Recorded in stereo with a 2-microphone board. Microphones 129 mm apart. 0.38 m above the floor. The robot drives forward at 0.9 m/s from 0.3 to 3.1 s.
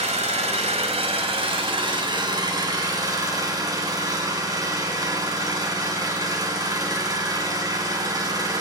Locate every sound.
0.0 s an engine running: 60° right (ahead or behind), 1.8 m; by 8.6 s 30° right (ahead or behind), 3 m